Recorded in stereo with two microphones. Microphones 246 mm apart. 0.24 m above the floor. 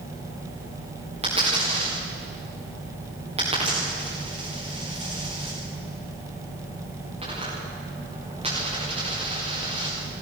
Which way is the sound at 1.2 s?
25° right (ahead or behind).